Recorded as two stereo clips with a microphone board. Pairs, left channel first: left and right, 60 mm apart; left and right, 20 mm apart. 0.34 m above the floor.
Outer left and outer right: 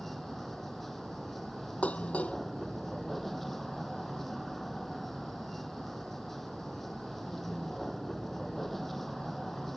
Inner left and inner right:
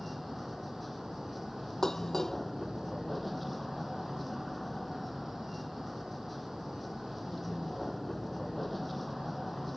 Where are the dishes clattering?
25° left (ahead or behind).